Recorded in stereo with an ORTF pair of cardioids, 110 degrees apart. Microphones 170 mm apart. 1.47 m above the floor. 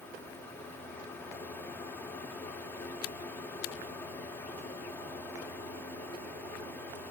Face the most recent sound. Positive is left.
turn(degrees=10)